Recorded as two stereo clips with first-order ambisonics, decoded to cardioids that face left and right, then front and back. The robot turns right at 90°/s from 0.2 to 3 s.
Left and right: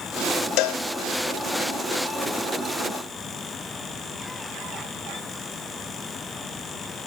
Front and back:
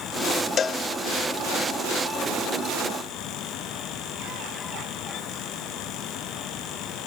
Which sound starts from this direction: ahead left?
A cowbell, at 0.6 s.